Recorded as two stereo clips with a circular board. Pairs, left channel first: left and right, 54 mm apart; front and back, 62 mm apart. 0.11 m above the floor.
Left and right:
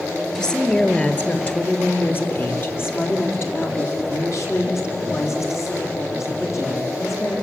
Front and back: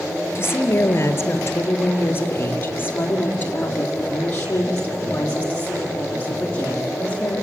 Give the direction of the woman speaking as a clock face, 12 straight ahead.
11 o'clock.